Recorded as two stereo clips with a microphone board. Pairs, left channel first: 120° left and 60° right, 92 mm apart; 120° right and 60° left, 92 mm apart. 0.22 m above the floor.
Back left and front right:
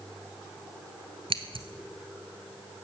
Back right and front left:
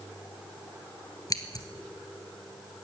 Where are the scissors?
75° right, 1.3 m.